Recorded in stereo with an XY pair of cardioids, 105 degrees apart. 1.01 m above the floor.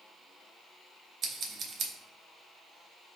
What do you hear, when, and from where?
1.2 s scissors: 65° right, 0.9 m